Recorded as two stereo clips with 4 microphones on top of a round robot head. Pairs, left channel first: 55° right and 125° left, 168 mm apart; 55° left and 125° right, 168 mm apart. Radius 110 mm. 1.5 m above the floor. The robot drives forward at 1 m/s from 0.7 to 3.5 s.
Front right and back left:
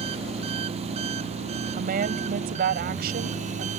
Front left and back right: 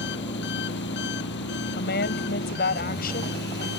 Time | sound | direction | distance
0.0 | an engine running | 70° left | ?
1.8 | a woman speaking | 85° left | ?